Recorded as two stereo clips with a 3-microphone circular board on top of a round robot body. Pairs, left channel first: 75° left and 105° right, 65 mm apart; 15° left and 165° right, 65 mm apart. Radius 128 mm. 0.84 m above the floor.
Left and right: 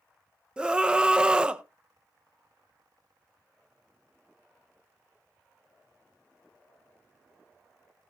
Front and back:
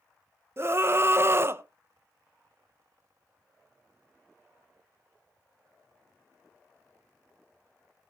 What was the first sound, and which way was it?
A scream, 175° right.